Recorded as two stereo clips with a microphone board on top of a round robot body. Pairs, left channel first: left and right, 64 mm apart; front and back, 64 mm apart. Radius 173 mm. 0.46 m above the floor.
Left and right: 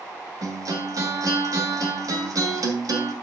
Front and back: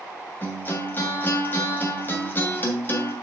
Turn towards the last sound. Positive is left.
turn(degrees=-60)